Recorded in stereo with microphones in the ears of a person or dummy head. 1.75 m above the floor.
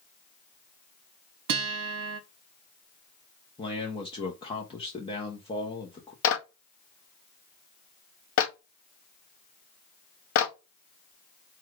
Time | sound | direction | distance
1.5 | a guitar | 70° right (ahead or behind) | 0.7 m
3.6 | a man speaking | 25° left (ahead or behind) | 0.7 m
6.2 | a clap | 65° left (ahead or behind) | 0.7 m